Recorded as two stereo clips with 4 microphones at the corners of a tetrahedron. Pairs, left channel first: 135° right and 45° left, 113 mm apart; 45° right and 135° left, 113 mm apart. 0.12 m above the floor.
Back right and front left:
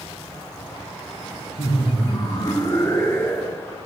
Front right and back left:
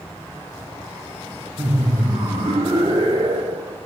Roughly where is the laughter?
Behind right.